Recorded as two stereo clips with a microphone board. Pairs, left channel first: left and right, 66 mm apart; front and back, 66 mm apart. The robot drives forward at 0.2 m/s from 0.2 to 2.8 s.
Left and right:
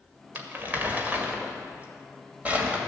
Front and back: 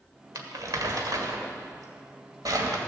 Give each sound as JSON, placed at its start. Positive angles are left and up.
{"t": 0.3, "sound": "crumpling", "azimuth_deg": -150, "distance_m": 1.4}